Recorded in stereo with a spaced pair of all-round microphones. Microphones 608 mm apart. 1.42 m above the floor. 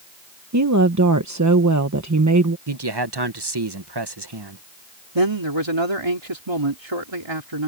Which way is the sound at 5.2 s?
45° right (ahead or behind).